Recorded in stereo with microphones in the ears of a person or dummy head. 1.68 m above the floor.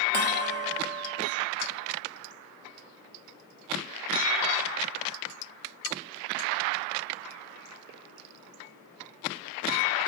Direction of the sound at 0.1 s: 55° right (ahead or behind).